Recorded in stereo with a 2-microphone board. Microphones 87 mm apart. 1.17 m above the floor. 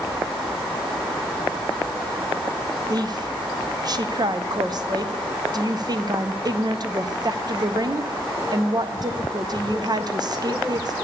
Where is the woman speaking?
45° right (ahead or behind), 0.6 m.